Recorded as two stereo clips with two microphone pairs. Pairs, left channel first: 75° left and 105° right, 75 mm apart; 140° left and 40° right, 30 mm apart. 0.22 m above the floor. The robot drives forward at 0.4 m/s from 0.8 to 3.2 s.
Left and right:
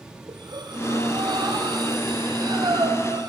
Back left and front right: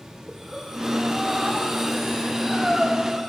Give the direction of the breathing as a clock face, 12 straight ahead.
4 o'clock.